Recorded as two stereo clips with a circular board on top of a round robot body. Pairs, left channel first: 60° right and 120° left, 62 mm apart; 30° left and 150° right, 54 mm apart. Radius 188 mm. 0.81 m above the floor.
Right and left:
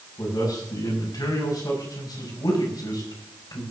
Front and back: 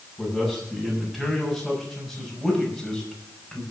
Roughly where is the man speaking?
Ahead right.